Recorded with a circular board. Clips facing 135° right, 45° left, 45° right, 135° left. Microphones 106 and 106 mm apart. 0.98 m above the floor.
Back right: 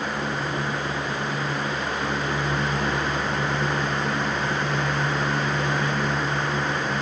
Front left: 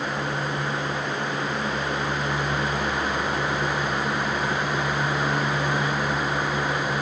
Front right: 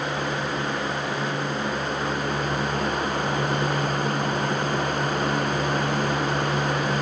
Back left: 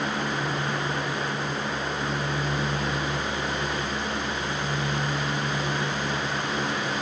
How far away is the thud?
No thud in this recording.